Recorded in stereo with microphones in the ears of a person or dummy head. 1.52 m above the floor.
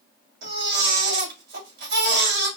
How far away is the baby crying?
About 3 m.